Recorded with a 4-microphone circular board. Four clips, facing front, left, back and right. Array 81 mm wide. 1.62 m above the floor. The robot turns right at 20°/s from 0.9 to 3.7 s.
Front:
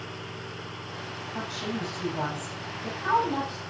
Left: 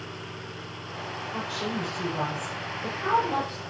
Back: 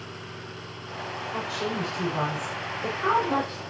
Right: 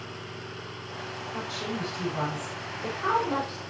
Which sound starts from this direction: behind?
A woman speaking, at 1.3 s.